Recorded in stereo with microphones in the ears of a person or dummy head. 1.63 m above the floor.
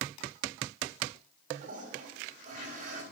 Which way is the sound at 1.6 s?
50° right (ahead or behind).